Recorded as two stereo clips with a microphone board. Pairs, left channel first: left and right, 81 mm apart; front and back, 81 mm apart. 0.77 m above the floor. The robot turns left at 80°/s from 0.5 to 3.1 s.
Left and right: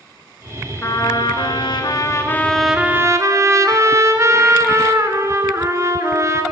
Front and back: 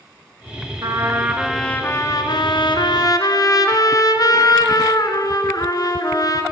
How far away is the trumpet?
About 2 m.